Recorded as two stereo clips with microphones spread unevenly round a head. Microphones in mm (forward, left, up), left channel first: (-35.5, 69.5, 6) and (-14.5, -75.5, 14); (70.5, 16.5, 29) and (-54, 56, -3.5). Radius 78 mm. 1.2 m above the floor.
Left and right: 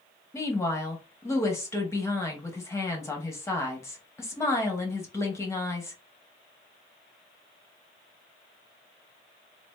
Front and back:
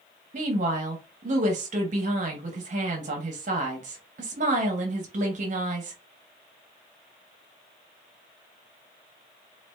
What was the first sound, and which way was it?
A woman speaking, 165° left.